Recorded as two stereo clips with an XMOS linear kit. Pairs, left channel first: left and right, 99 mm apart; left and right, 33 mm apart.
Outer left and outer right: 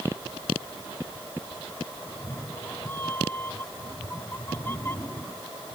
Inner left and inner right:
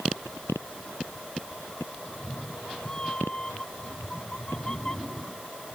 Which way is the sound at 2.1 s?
20° left (ahead or behind).